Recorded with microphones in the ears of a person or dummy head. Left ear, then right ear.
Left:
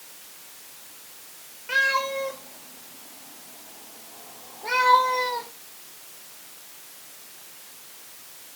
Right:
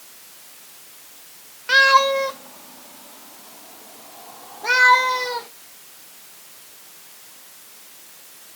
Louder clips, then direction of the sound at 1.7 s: Right 9 dB; 45° right (ahead or behind).